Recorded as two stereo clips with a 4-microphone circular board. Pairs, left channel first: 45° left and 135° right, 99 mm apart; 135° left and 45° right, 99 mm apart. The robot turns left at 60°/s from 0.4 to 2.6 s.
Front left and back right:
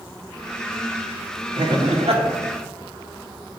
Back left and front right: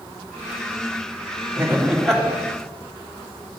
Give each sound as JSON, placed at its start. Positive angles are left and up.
{"t": 1.6, "sound": "laughter", "azimuth_deg": -105, "distance_m": 2.5}